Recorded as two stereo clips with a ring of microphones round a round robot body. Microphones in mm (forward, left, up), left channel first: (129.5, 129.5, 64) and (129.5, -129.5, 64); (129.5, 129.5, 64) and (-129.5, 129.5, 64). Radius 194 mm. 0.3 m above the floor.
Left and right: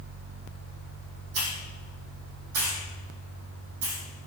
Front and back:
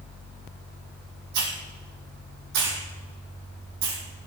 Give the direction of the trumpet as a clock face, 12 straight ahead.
No trumpet in this recording.